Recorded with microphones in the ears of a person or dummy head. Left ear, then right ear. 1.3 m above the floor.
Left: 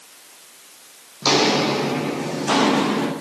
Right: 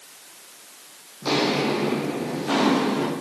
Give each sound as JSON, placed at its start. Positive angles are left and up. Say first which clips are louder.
{"t": 1.2, "sound": "footsteps", "louder": "left 5 dB", "side_deg": 40, "distance_m": 3.5}